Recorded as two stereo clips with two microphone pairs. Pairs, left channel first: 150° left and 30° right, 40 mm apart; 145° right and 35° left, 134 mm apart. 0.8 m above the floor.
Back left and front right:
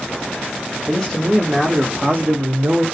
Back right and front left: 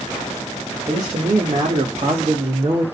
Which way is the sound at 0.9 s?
65° left.